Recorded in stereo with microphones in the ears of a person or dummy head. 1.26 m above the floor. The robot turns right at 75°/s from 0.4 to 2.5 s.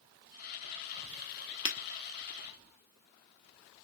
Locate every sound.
1.6 s breaking glass: 35° left (ahead or behind), 1.7 m; by 1.8 s 40° left (ahead or behind), 1.7 m